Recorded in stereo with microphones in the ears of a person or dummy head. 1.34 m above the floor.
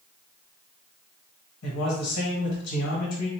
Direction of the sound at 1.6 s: 80° left.